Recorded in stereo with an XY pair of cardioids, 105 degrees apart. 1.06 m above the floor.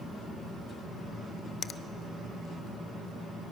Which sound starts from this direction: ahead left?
A finger snap, at 1.6 s.